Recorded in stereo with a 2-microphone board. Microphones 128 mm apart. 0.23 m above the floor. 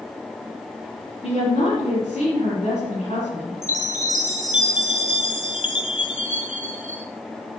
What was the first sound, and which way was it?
A woman speaking, 55° left (ahead or behind).